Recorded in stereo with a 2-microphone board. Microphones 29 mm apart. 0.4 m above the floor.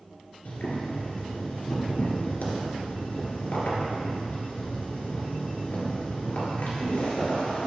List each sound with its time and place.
0.5 s boiling: 75° left (ahead or behind), 2.0 m